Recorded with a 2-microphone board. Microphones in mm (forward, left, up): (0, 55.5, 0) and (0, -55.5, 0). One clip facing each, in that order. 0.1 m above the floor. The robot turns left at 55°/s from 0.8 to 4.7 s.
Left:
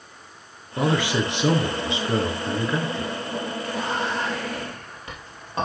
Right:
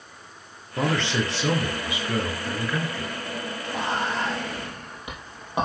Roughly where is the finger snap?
I don't hear a finger snap.